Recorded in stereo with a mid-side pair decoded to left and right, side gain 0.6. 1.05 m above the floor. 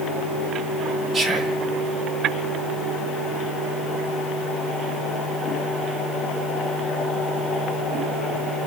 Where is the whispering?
25° right, 1.3 m.